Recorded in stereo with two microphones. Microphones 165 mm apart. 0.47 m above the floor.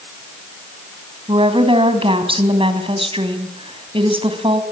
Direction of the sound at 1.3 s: 35° right (ahead or behind).